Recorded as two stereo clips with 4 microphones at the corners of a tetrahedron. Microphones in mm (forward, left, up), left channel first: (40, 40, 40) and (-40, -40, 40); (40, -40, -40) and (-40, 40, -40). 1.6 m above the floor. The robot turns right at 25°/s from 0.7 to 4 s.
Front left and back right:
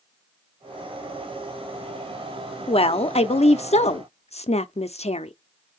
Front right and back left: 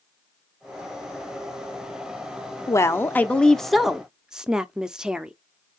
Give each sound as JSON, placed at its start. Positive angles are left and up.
{"t": 2.7, "sound": "a woman speaking", "azimuth_deg": 20, "distance_m": 0.6}